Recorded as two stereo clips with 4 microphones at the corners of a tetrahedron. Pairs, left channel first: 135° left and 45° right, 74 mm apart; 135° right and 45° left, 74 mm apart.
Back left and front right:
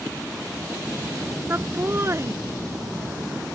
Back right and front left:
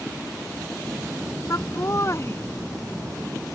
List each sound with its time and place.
1.5 s laughter: 100° right; by 3.6 s 70° right